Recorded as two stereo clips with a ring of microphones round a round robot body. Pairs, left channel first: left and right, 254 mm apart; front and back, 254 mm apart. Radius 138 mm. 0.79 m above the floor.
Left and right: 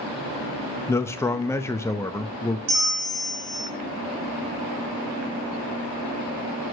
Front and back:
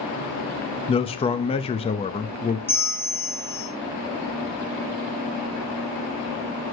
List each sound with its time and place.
0.9 s a man speaking: 25° left, 0.6 m
2.7 s a bell: 80° right, 3.5 m